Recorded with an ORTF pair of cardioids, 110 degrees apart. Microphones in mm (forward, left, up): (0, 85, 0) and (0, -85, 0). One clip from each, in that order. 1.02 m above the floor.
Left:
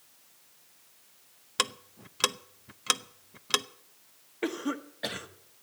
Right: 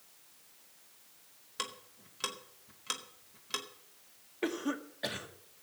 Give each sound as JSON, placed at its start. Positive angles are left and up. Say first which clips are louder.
{"t": 1.6, "sound": "ticking", "louder": "left 10 dB", "azimuth_deg": 55, "distance_m": 0.8}
{"t": 4.4, "sound": "a cough", "louder": "left 2 dB", "azimuth_deg": 10, "distance_m": 1.6}